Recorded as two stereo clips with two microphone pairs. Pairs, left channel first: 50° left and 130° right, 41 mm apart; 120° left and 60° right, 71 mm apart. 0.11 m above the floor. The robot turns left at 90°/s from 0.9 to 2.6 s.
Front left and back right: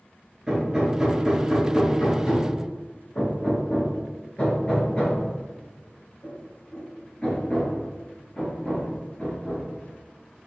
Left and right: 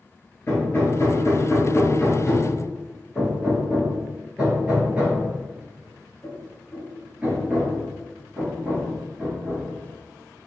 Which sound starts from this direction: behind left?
Hammering, at 0.5 s.